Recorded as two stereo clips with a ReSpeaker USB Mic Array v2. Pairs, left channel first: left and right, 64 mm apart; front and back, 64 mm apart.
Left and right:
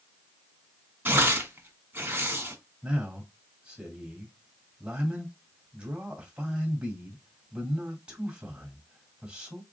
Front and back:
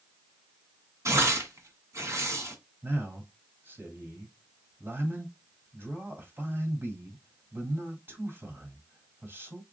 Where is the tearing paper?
145° right, 1.6 m.